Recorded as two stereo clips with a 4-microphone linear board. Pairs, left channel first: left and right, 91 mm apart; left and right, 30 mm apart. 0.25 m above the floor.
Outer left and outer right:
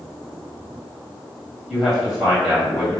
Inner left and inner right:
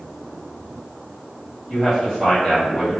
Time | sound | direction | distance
1.7 | a man speaking | centre (ahead or behind) | 1.5 m